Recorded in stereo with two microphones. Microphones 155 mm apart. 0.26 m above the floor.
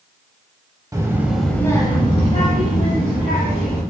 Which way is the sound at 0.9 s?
20° right (ahead or behind).